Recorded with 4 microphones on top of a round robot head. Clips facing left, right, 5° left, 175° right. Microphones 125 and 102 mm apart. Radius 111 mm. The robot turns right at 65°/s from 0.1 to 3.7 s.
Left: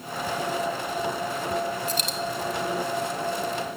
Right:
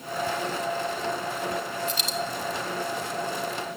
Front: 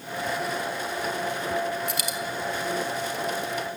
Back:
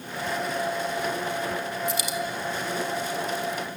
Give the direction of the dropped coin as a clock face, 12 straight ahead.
11 o'clock.